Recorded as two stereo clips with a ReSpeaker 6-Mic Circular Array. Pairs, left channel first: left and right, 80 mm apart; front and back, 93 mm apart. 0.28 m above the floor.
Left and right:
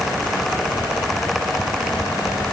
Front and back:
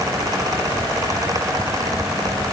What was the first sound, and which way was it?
Only background noise.